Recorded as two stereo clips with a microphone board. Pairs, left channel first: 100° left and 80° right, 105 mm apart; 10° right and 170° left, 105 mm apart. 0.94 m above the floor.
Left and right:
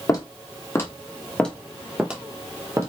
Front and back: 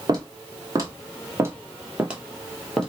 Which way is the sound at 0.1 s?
140° left.